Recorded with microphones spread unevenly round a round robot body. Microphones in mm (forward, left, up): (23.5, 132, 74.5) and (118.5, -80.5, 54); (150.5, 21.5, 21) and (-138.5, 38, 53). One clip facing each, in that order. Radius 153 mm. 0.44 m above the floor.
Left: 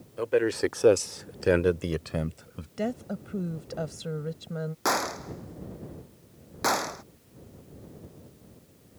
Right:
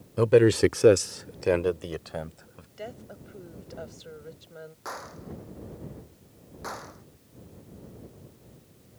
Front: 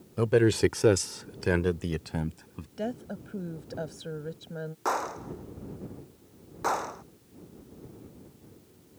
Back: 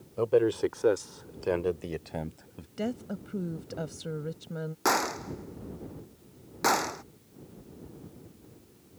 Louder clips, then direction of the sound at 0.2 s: Right 6 dB, front 2 dB; 55° right.